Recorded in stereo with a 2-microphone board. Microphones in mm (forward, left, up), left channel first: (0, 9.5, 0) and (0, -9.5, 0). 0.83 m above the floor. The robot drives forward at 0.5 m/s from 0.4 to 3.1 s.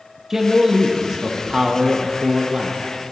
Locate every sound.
0.3 s a man speaking: 20° right (ahead or behind), 1.2 m; by 2.8 s 30° right (ahead or behind), 0.9 m